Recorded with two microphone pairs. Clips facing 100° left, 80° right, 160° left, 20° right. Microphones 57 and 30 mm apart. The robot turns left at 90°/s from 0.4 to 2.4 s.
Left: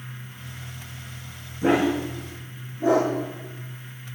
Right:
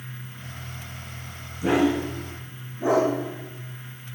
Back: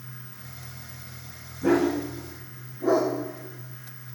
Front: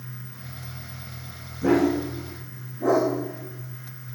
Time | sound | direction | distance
1.6 | a dog barking | 55° left | 6 m